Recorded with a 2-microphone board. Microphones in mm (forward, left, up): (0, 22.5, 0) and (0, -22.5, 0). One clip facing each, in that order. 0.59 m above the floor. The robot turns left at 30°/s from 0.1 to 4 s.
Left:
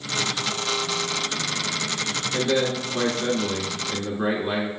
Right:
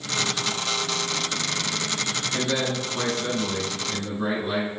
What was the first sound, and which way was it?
A man speaking, 10° left (ahead or behind).